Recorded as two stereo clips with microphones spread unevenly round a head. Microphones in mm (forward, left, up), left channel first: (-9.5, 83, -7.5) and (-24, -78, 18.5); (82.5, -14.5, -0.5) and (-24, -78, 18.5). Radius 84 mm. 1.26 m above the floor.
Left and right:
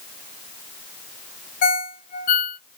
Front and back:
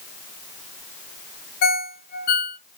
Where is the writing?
No writing in this recording.